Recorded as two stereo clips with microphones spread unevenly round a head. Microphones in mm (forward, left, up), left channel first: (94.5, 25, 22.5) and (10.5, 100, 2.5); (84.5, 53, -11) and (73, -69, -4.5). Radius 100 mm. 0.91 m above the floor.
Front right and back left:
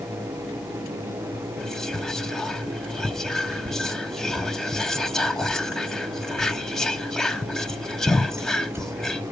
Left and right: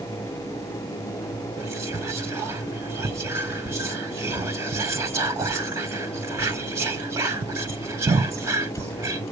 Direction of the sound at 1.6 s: 145° right.